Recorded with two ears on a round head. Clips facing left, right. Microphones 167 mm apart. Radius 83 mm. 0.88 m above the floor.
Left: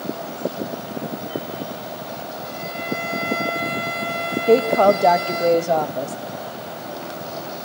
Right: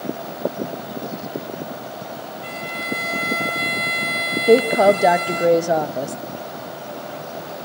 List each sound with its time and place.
2.4 s a violin: 85° right, 4 m
4.5 s a woman speaking: 10° right (ahead or behind), 0.6 m